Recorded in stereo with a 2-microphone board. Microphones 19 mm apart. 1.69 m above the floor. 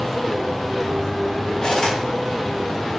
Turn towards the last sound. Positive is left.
turn(degrees=40)  # may be behind; listen again after turning